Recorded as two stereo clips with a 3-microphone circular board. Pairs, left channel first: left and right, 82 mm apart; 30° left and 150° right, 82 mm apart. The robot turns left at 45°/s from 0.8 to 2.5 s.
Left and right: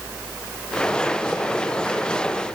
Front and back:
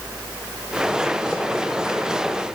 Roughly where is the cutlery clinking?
I don't hear cutlery clinking.